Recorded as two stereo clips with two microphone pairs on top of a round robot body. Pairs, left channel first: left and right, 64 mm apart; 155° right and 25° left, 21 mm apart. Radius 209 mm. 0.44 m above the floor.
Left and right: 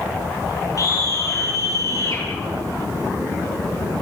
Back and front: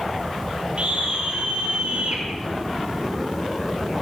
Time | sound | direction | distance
0.8 | a scream | 60° left | 9 m